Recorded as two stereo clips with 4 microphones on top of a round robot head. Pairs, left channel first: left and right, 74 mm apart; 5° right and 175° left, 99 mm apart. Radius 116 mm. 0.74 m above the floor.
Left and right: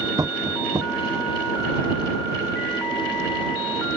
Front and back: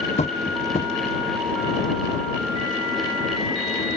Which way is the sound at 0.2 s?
30° right.